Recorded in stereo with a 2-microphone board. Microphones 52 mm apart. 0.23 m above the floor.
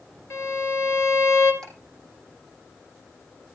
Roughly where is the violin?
Left.